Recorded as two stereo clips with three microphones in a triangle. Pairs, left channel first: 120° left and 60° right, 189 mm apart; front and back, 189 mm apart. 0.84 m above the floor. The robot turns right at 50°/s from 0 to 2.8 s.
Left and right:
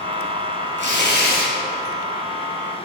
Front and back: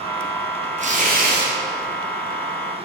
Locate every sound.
0.8 s tearing paper: 130° left, 2 m; by 1.5 s 165° left, 2 m